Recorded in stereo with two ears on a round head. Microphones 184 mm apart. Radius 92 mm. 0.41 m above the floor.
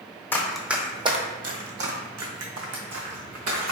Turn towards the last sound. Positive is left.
turn(degrees=-75)  # may be behind; listen again after turning